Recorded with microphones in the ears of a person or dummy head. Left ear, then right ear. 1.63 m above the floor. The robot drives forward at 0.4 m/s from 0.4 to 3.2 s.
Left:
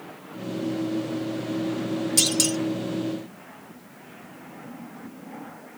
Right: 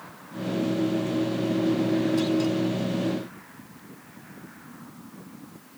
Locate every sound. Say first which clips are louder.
2.2 s a clunk: left 2 dB; 70° left (ahead or behind); by 2.6 s 75° left (ahead or behind)